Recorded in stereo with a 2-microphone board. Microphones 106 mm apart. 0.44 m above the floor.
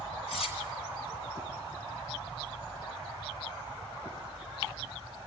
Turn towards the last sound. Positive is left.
turn(degrees=65)  # may be behind; listen again after turning